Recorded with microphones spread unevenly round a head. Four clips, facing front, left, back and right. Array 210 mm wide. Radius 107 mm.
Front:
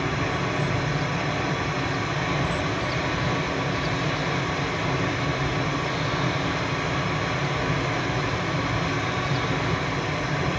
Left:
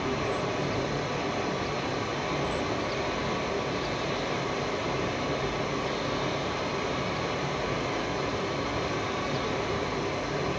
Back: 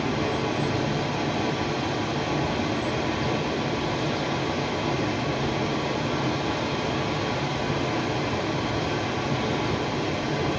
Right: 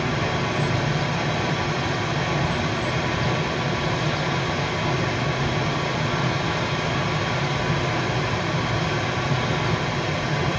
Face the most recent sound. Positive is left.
turn(degrees=-70)